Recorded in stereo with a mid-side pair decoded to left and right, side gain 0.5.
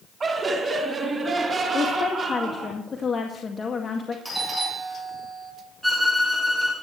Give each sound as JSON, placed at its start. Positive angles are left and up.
{"t": 0.2, "sound": "laughter", "azimuth_deg": -35, "distance_m": 3.0}
{"t": 1.7, "sound": "a woman speaking", "azimuth_deg": 30, "distance_m": 2.0}
{"t": 4.2, "sound": "a doorbell", "azimuth_deg": -5, "distance_m": 7.0}
{"t": 5.8, "sound": "a violin", "azimuth_deg": -5, "distance_m": 6.5}